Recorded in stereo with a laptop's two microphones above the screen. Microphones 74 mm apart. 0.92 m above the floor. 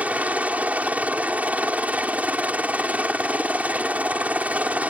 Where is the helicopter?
20° right (ahead or behind).